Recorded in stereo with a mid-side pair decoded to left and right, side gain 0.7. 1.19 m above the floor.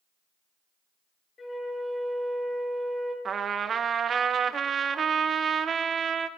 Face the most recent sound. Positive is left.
turn(degrees=-30)